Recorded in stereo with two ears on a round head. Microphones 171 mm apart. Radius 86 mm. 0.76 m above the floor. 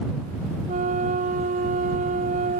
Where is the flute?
45° right (ahead or behind).